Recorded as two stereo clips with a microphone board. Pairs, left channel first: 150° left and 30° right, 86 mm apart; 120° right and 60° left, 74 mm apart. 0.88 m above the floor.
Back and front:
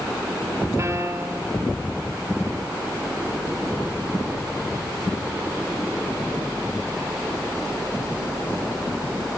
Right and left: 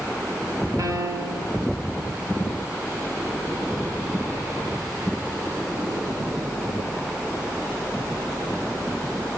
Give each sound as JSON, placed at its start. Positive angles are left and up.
{"t": 0.8, "sound": "a piano", "azimuth_deg": 25, "distance_m": 5.0}